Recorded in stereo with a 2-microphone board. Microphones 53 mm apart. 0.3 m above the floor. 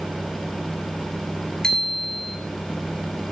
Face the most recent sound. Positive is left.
turn(degrees=15)  # may be behind; listen again after turning